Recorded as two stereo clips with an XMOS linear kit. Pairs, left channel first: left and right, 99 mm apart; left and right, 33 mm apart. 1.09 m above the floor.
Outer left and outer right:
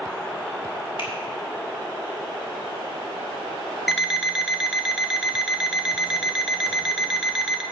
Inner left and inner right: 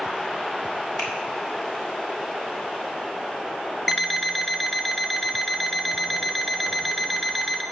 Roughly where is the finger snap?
Left.